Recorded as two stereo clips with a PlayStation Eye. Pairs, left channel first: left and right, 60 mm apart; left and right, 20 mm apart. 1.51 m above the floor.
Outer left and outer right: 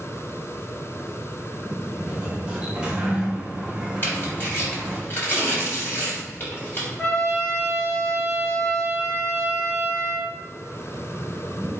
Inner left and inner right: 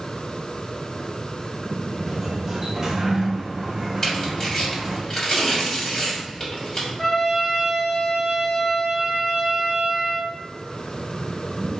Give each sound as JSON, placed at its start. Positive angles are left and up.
{"t": 2.1, "sound": "a sliding door", "side_deg": -15, "distance_m": 0.9}
{"t": 4.0, "sound": "tearing paper", "side_deg": 35, "distance_m": 1.9}
{"t": 7.0, "sound": "a trumpet", "side_deg": 25, "distance_m": 1.3}